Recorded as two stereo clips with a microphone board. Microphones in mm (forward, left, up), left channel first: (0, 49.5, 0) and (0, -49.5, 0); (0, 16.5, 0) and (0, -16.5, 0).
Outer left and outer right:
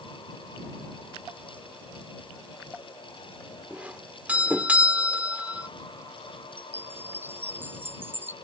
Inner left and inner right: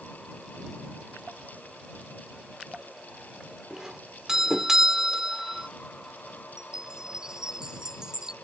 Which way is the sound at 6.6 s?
20° right (ahead or behind).